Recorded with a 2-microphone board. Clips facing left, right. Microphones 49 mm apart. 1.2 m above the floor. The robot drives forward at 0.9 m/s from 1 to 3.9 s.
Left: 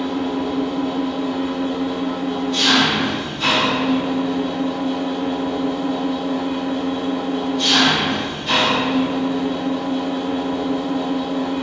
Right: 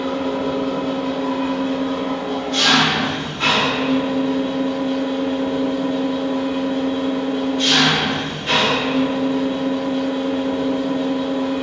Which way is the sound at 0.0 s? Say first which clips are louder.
Right 1 dB; 70° right (ahead or behind).